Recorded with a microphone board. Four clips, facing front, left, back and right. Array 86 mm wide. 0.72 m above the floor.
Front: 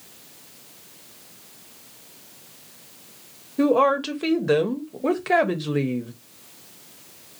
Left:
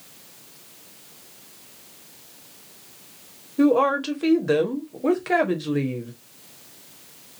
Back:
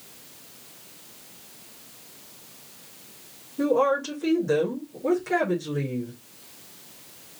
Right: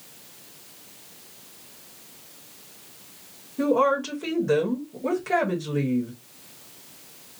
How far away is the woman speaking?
About 1.0 m.